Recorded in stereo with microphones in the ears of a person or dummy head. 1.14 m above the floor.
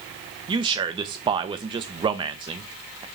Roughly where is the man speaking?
Right.